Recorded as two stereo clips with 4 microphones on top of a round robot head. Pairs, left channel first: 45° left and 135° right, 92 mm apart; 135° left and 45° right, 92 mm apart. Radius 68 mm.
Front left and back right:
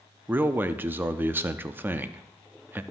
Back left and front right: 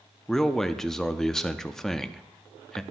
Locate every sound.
0.3 s a man speaking: 145° right, 0.6 m